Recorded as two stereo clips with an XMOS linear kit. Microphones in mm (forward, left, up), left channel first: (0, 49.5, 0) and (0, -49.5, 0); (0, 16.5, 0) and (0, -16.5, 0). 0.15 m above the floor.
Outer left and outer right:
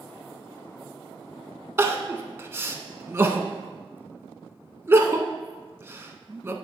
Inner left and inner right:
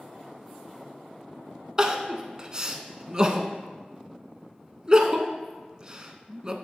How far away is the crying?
About 0.5 m.